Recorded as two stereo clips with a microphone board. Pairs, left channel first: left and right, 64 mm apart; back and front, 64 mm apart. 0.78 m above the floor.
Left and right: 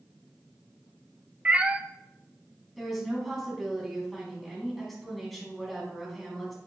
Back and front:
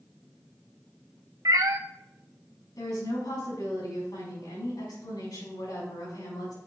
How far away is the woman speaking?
About 5 m.